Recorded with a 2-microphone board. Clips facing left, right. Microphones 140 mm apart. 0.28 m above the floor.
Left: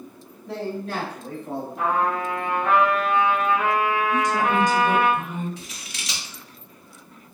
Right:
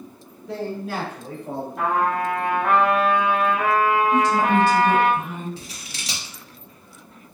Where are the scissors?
35° right (ahead or behind), 0.9 m.